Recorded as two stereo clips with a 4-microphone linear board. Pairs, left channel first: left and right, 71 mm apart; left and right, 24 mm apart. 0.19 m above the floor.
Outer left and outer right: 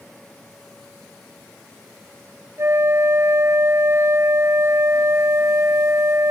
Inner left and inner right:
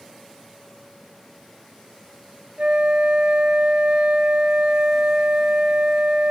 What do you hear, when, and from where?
2.6 s a flute: 45° right (ahead or behind)